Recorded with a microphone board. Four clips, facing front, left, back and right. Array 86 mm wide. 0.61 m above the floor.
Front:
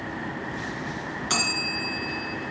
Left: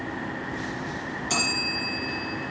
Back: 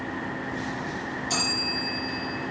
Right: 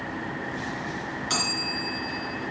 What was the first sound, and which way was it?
A bell, 25° right.